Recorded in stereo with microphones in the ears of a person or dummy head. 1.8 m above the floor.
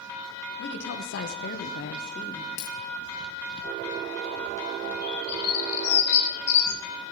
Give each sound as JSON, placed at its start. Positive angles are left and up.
{"t": 0.6, "sound": "a woman speaking", "side_deg": 70, "distance_m": 2.0}
{"t": 2.6, "sound": "a dropped coin", "side_deg": 45, "distance_m": 3.0}
{"t": 5.0, "sound": "a bird", "side_deg": 60, "distance_m": 4.0}